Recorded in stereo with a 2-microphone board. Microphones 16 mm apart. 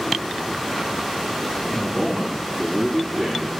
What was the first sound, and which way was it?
A man speaking, 15° left (ahead or behind).